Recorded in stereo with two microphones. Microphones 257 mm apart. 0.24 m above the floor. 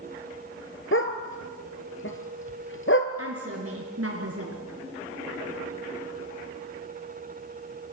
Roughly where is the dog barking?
Left.